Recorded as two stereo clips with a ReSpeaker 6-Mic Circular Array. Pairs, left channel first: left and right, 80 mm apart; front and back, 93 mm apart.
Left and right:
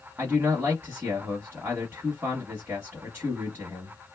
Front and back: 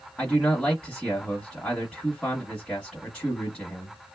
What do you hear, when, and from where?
0.2 s a man speaking: 75° right, 1.1 m